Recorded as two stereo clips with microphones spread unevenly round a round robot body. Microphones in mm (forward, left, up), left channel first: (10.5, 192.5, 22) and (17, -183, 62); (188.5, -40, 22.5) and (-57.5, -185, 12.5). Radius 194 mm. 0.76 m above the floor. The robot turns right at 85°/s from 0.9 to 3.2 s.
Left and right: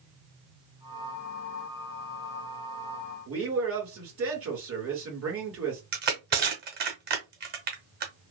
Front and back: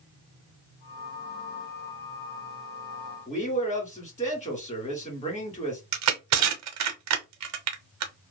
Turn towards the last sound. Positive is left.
turn(degrees=-145)